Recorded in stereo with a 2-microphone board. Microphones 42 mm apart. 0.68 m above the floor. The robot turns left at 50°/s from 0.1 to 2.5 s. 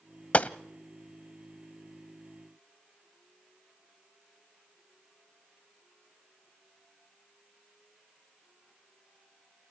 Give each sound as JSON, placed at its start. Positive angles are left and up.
{"t": 0.3, "sound": "a gunshot", "side_deg": 35, "distance_m": 0.6}